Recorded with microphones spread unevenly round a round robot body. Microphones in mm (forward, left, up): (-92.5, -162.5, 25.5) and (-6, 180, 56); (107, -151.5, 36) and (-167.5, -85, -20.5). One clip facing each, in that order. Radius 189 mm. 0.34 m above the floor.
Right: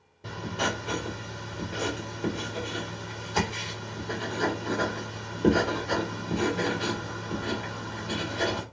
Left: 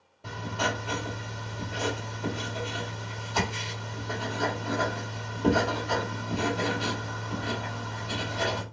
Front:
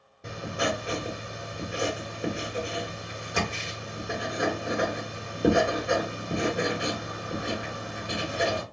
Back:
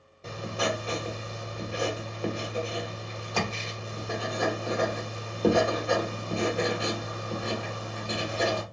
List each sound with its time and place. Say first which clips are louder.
0.2 s writing: right 1 dB, front 1 dB; 95° right, 1.3 m